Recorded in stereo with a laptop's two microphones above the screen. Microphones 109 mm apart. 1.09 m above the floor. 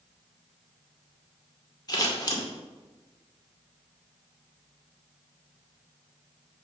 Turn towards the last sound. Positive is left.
turn(degrees=40)  # may be behind; listen again after turning